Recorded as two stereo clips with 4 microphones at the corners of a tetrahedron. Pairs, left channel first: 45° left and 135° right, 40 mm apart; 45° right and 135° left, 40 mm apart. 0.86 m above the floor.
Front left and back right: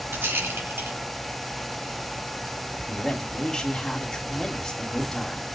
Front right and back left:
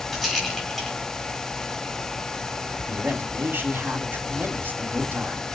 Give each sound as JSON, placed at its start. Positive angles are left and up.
{"t": 0.1, "sound": "a rattle", "azimuth_deg": -130, "distance_m": 3.5}
{"t": 2.9, "sound": "a man speaking", "azimuth_deg": 120, "distance_m": 2.5}